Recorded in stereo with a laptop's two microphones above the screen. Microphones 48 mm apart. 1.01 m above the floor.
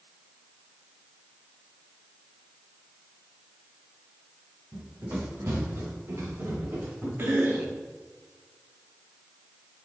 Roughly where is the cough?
Right.